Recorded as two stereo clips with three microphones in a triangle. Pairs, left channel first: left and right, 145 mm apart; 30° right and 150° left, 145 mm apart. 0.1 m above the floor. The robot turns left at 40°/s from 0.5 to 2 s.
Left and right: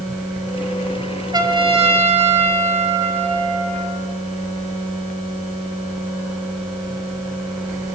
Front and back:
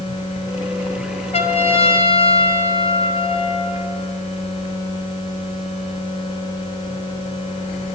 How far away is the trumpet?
About 1.5 m.